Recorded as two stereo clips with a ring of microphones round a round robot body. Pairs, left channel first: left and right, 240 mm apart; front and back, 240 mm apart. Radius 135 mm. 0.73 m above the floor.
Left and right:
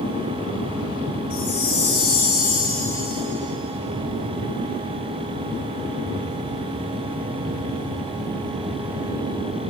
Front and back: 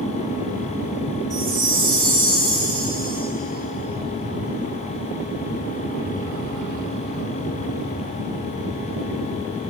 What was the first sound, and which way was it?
A chime, 110° left.